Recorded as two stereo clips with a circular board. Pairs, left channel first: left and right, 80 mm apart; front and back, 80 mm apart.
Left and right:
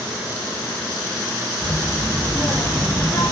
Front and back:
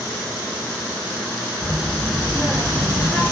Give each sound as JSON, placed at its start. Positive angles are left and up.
{"t": 1.6, "sound": "a child speaking", "azimuth_deg": 115, "distance_m": 2.5}